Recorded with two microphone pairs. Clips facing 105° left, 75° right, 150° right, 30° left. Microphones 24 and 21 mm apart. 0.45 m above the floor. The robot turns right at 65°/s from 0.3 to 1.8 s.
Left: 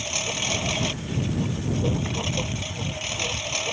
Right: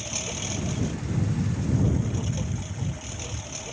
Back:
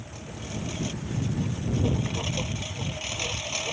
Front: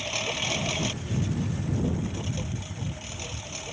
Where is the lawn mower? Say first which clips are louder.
Left 6 dB, front 12 dB; 50° left; by 3.7 s 145° left.